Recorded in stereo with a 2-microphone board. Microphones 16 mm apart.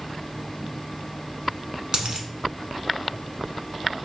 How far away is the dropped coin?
About 0.7 m.